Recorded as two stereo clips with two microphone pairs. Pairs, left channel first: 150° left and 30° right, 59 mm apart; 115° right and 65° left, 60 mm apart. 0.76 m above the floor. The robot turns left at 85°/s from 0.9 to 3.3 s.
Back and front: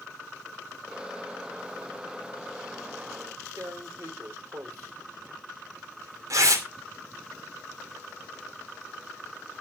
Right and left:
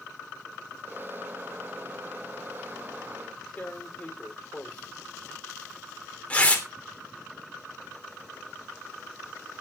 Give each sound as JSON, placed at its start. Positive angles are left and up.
{"t": 3.6, "sound": "tearing paper", "azimuth_deg": -50, "distance_m": 2.5}